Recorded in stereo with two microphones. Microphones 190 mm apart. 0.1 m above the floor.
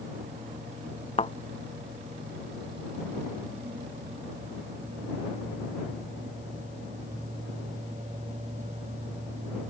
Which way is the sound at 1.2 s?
35° left (ahead or behind).